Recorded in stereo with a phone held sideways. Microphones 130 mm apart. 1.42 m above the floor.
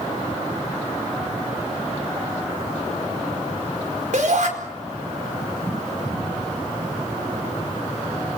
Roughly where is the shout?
Right.